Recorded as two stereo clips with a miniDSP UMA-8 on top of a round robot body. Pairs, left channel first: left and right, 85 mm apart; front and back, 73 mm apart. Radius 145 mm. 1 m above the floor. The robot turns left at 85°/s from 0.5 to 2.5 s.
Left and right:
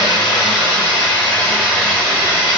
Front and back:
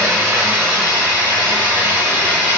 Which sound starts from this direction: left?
Running water, at 0.0 s.